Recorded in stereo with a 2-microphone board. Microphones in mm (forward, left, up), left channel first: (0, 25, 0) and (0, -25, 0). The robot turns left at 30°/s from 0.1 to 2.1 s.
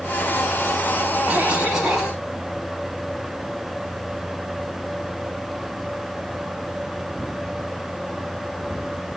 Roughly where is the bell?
No bell in this recording.